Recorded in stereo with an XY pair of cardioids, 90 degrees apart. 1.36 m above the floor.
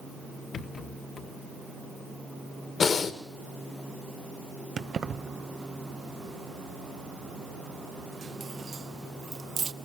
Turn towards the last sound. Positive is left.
turn(degrees=-55)